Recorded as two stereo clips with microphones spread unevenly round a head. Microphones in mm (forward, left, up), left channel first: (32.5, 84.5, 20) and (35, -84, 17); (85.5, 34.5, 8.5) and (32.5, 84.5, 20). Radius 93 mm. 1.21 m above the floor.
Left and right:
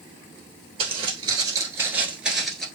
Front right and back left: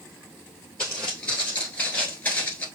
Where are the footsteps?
130° right, 1.4 m; by 2.7 s 15° left, 1.2 m.